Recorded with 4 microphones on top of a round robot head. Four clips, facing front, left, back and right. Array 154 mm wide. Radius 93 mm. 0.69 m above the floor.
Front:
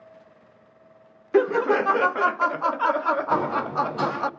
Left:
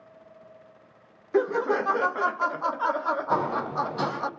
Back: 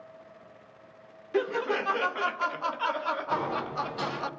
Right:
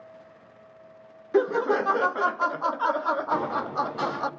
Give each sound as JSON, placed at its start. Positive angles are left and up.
{"t": 1.3, "sound": "laughter", "azimuth_deg": -10, "distance_m": 0.5}
{"t": 3.3, "sound": "a sliding door", "azimuth_deg": 55, "distance_m": 5.0}